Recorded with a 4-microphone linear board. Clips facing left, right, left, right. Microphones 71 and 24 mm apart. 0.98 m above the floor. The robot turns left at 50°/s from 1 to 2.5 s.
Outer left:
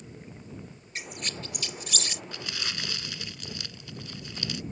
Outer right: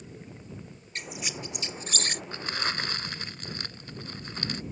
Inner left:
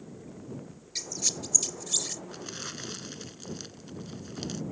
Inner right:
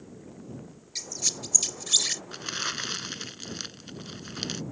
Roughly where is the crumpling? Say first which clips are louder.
Outer right 7 dB, inner right 7 dB; right.